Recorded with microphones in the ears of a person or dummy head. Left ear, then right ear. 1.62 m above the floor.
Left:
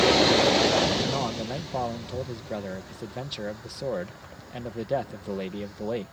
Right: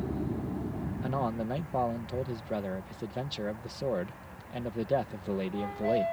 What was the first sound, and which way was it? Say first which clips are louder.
A man speaking: left 4 dB; 15° left (ahead or behind).